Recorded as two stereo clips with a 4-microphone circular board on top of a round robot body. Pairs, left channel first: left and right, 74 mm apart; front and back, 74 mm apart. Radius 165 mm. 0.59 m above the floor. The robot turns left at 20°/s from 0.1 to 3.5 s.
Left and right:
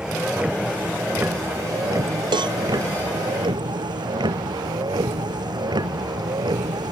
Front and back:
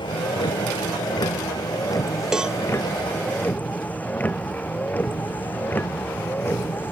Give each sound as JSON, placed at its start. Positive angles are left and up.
{"t": 0.0, "sound": "a vehicle", "azimuth_deg": -10}
{"t": 2.3, "sound": "a cowbell", "azimuth_deg": -100}